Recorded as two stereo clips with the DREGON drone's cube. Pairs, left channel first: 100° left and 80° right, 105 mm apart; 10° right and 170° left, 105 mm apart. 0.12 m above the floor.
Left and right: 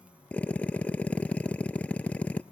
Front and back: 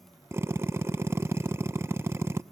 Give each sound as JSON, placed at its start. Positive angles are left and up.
{"t": 0.3, "sound": "a drill", "azimuth_deg": 155, "distance_m": 0.5}